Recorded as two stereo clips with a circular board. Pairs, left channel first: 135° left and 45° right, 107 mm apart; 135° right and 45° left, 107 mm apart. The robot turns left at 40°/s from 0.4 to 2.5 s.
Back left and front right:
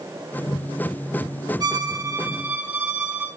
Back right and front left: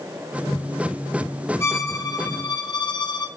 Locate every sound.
1.6 s a violin: 75° right, 1.0 m; by 3.3 s 115° right, 1.0 m